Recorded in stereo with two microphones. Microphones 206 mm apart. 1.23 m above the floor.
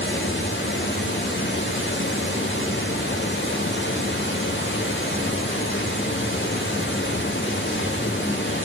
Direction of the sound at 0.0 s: 70° left (ahead or behind).